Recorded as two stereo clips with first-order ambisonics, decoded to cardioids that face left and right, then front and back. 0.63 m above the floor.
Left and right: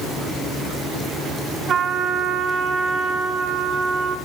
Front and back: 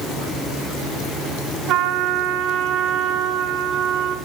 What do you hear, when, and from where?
1.7 s a trumpet: 145° right, 1.6 m